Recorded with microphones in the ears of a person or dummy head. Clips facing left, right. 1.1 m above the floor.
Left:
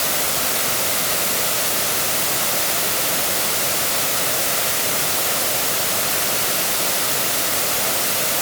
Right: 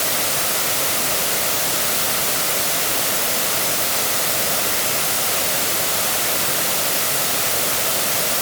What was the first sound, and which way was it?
Only background noise.